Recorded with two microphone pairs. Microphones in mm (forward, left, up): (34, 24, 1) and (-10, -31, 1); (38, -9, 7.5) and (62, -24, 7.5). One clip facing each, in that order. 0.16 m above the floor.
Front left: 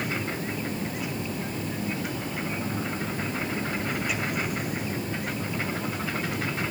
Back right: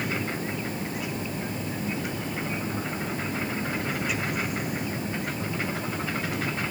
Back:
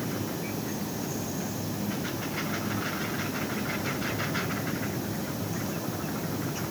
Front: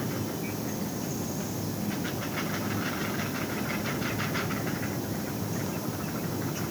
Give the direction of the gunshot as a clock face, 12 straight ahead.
I don't hear a gunshot.